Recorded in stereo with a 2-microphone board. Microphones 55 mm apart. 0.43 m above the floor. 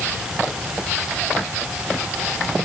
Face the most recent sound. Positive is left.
No sound to turn to.